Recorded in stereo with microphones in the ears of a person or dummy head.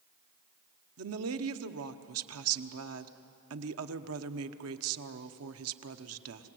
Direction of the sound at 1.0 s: 80° right.